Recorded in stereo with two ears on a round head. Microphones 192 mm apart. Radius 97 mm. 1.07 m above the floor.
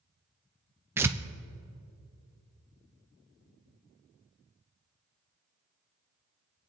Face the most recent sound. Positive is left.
turn(degrees=-10)  # may be behind; listen again after turning